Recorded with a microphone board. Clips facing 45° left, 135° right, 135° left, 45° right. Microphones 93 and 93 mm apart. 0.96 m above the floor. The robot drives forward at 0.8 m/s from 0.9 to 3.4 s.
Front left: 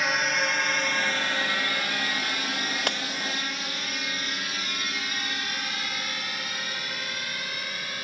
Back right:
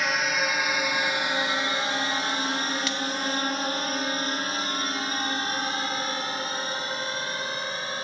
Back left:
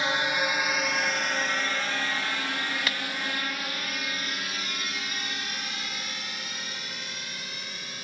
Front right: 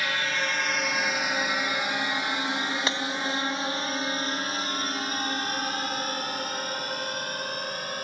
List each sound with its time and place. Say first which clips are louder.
0.0 s a drone: even, back left 2 dB; 135° left; by 8.0 s 80° right
2.9 s breaking glass: even, front right 3 dB; 15° left